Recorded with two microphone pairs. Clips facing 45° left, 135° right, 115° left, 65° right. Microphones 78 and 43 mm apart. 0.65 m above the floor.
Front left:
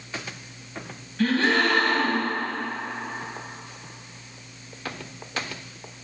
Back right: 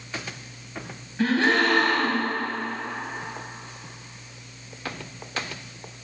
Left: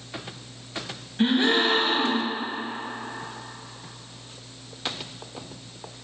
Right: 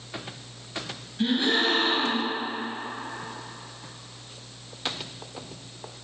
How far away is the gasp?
About 0.6 m.